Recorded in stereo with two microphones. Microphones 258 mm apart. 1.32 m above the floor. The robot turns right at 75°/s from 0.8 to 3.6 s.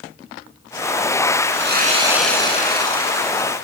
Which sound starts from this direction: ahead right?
Sawing, at 1.5 s.